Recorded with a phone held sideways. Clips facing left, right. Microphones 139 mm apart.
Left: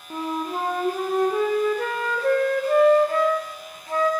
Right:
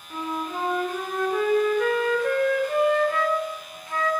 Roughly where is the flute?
Left.